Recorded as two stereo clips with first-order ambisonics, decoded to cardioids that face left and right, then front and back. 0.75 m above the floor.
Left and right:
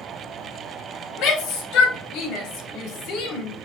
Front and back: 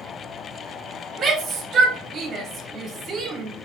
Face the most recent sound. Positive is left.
turn(degrees=120)